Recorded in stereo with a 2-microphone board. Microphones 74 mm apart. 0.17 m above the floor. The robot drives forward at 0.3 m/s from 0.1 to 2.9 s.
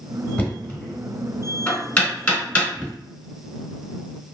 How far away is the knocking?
About 0.9 m.